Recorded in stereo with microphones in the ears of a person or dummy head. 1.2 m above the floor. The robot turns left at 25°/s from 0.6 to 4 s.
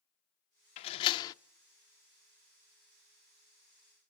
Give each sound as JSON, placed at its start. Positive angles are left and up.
{"t": 0.8, "sound": "a door slam", "side_deg": 35, "distance_m": 0.6}